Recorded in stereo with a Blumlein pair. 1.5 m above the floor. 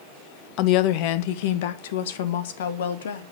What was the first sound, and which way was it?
A woman speaking, 40° left.